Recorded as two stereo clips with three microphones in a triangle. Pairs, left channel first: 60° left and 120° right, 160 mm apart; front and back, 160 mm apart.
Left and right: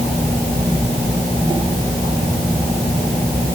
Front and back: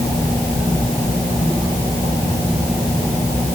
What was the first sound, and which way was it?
Only background noise.